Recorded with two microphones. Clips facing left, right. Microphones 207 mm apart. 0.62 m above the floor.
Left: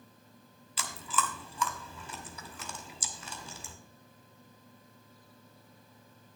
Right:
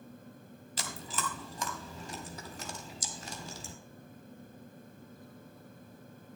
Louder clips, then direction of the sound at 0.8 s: Left 4 dB; 45° right (ahead or behind).